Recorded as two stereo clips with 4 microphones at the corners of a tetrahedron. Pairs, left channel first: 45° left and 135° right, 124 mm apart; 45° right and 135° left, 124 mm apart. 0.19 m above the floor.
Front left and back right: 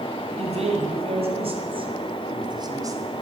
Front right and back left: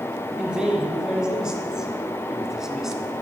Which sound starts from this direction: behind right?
A man speaking, at 0.4 s.